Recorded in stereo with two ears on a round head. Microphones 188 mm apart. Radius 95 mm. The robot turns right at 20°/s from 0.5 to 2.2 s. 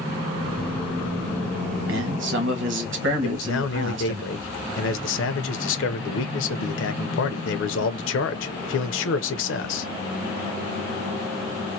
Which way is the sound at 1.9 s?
65° right (ahead or behind).